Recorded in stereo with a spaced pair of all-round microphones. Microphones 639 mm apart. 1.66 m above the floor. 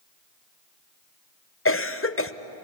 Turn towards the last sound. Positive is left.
turn(degrees=20)  # may be behind; listen again after turning